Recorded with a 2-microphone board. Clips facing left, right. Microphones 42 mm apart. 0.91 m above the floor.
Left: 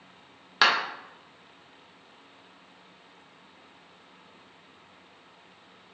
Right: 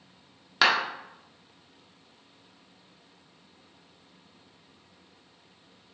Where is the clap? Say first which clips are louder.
Even; 5° left (ahead or behind), 0.9 m.